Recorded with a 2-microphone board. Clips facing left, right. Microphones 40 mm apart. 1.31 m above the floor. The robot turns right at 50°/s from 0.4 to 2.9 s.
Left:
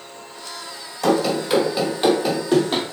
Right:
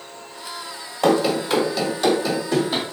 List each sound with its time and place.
1.0 s running footsteps: 30° right (ahead or behind), 1.7 m; by 2.8 s 50° left (ahead or behind), 2.5 m